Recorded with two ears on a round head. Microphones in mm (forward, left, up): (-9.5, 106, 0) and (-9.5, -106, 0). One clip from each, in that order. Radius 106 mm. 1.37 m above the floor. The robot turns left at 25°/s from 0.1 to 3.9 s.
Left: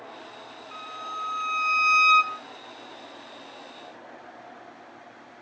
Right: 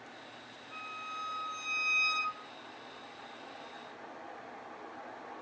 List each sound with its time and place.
0.7 s a violin: 125° left, 0.9 m; by 2.4 s 80° left, 0.9 m